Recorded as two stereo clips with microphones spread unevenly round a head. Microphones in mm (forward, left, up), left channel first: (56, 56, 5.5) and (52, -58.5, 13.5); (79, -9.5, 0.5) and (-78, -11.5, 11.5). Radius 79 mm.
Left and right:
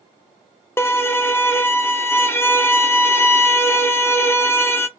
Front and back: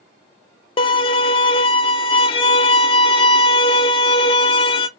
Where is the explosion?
I don't hear an explosion.